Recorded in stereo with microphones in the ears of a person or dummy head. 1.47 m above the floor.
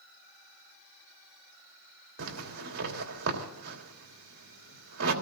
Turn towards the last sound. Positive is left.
turn(degrees=-80)